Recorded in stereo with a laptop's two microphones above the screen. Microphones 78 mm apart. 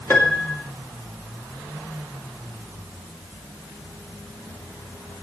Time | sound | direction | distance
0.1 | a piano | 30° left (ahead or behind) | 2.5 m